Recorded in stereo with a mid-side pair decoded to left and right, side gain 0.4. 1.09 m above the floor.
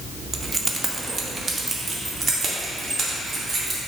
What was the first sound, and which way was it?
Keys jangling, 25° right.